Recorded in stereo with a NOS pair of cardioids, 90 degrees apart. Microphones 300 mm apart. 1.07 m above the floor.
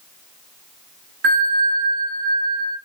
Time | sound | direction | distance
1.2 | a bell | 55° right | 1.3 m